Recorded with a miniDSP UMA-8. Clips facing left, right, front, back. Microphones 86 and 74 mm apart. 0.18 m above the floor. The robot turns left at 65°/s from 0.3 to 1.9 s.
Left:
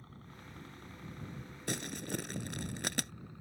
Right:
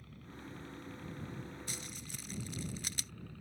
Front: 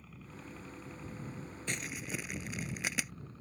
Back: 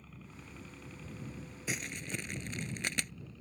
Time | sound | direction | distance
0.0 | a helicopter | 85° left | ?
1.7 | crumpling | 100° left | ?